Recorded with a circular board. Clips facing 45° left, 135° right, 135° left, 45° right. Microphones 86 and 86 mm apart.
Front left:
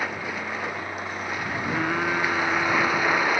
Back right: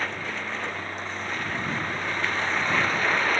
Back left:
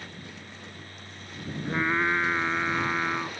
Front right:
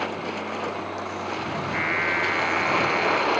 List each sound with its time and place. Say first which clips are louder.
0.0 s a vehicle: front left 2 dB, front right 15 dB; 35° right
1.6 s singing: front left 5 dB, back left 2 dB; 70° left